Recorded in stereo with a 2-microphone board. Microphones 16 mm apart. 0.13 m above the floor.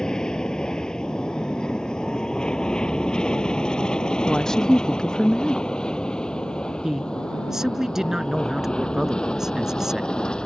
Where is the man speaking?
30° right (ahead or behind).